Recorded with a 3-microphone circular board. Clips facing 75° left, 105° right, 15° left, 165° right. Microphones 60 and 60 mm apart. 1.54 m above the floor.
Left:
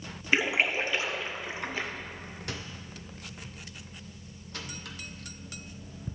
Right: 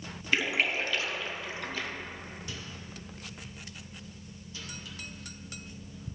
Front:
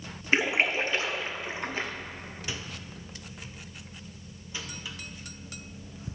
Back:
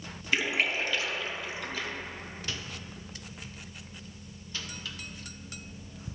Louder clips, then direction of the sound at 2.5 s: Left 2 dB, front 2 dB; 90° left.